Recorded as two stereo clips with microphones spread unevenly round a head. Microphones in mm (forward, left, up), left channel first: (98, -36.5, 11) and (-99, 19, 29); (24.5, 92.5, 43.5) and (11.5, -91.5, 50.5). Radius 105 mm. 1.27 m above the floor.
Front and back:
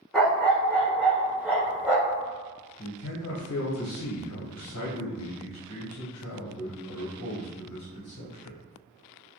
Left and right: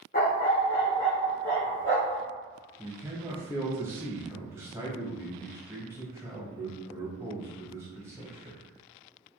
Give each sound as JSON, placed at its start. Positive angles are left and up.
{"t": 0.1, "sound": "a dog barking", "azimuth_deg": 75, "distance_m": 0.8}
{"t": 2.8, "sound": "a man speaking", "azimuth_deg": -15, "distance_m": 0.9}